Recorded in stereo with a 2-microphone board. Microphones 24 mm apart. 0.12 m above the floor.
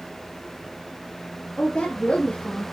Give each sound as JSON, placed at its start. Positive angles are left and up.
{"t": 1.6, "sound": "a woman speaking", "side_deg": 50, "distance_m": 2.0}